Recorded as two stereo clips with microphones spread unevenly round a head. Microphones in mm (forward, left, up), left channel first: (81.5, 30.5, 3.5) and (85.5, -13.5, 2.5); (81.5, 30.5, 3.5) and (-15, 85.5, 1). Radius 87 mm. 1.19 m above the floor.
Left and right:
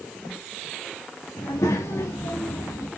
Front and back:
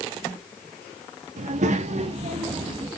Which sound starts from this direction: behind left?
A child speaking, at 1.4 s.